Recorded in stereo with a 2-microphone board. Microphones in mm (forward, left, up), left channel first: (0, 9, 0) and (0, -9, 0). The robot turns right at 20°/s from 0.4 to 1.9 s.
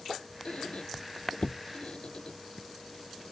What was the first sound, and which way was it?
A squeak, 75° left (ahead or behind).